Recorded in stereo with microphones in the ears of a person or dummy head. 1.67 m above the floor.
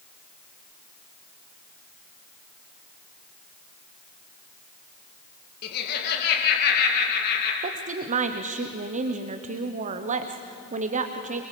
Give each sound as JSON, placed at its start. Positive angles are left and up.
{"t": 5.6, "sound": "laughter", "side_deg": 55, "distance_m": 2.5}
{"t": 7.6, "sound": "a woman speaking", "side_deg": -35, "distance_m": 1.1}